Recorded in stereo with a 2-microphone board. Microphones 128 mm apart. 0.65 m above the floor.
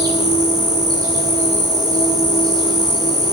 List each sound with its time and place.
0.0 s an insect: 30° right (ahead or behind), 6.5 m